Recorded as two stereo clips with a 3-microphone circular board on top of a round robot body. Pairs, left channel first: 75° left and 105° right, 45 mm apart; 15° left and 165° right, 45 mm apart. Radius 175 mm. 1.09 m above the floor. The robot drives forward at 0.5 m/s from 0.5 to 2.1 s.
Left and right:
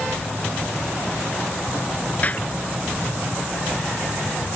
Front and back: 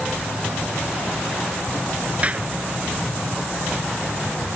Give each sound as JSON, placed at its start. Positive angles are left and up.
{"t": 2.2, "sound": "a clap", "azimuth_deg": 135}